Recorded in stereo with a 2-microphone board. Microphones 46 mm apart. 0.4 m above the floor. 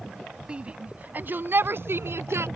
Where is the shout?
20° right (ahead or behind); by 2.5 s 65° right (ahead or behind).